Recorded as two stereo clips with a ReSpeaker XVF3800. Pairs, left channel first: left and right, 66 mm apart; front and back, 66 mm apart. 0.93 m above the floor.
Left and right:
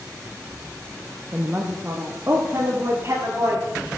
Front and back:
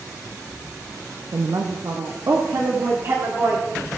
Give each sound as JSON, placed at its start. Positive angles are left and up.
{"t": 1.3, "sound": "a woman speaking", "azimuth_deg": -160, "distance_m": 0.8}